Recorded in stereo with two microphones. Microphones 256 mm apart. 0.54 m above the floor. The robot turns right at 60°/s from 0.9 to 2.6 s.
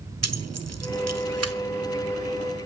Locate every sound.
0.2 s keys jangling: 70° right (ahead or behind), 1.4 m; by 1.5 s 60° right (ahead or behind), 1.4 m